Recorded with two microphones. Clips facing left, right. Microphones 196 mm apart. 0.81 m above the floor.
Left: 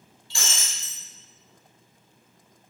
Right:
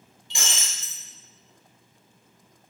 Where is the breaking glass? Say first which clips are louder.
Right 1 dB; 20° right (ahead or behind), 0.8 m.